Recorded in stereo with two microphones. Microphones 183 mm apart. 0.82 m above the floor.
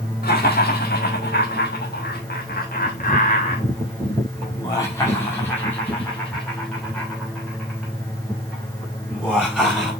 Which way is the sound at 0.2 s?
60° left (ahead or behind).